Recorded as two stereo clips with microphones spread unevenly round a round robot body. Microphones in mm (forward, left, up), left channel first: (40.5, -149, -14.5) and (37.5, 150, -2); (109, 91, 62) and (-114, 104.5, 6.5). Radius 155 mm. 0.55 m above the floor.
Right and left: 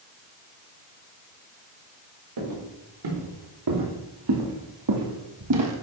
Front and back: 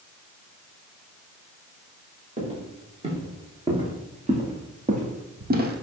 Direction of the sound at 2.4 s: 110° left.